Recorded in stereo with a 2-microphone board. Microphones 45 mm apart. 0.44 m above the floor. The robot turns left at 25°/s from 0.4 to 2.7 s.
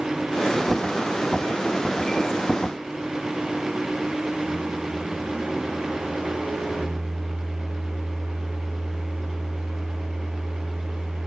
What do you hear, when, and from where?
4.4 s a microwave: 10° right (ahead or behind), 1.0 m